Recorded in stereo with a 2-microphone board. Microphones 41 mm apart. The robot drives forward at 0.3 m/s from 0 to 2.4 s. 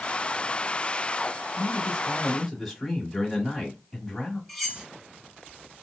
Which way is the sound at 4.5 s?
Centre (ahead or behind).